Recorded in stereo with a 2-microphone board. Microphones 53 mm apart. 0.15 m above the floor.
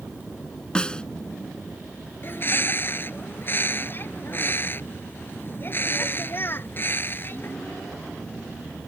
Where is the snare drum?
15° left (ahead or behind).